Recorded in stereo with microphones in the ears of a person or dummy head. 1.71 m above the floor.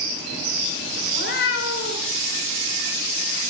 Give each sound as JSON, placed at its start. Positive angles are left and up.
{"t": 1.1, "sound": "a cat meowing", "side_deg": 70, "distance_m": 3.0}